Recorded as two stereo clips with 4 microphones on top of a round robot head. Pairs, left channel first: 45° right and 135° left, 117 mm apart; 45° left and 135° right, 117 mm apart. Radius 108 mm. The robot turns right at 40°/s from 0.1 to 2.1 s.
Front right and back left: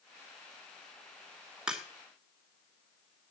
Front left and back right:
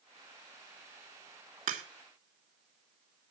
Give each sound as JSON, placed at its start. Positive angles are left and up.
{"t": 1.7, "sound": "a crack", "azimuth_deg": -140, "distance_m": 3.0}